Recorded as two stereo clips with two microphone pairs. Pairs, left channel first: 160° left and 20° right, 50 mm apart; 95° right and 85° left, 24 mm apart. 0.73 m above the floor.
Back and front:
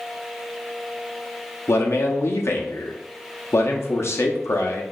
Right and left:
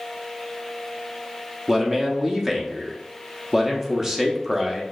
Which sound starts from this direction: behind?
A man speaking, at 1.7 s.